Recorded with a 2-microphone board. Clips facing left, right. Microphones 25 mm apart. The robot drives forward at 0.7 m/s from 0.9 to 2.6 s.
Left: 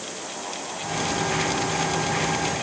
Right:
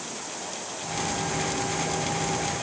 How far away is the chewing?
No chewing in this recording.